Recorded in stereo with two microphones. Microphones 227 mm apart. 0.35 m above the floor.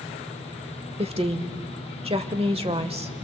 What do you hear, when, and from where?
1.0 s a woman speaking: 25° right (ahead or behind), 1.1 m